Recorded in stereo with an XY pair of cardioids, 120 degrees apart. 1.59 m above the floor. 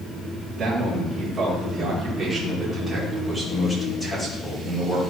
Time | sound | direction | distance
0.6 | a man speaking | 60° right | 2.5 m